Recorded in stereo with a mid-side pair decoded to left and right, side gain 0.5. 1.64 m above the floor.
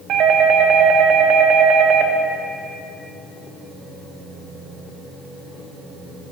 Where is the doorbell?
65° right, 1.1 m.